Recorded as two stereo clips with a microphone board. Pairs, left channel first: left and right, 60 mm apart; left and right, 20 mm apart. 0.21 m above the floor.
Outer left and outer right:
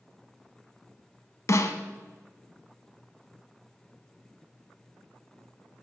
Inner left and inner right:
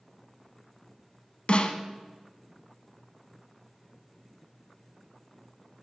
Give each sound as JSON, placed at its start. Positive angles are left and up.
{"t": 1.5, "sound": "a snare drum", "side_deg": 55, "distance_m": 0.6}